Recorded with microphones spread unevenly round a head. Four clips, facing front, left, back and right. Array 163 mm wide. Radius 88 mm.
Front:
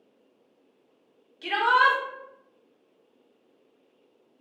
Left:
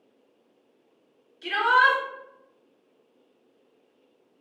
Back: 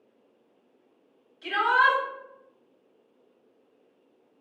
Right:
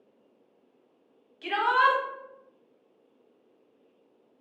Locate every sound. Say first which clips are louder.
1.4 s a shout: left 2 dB, front 1 dB; 45° right, 1.0 m